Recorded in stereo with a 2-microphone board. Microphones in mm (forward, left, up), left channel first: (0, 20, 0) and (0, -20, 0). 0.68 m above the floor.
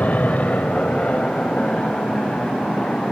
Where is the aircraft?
45° left (ahead or behind); by 3.1 s 30° left (ahead or behind).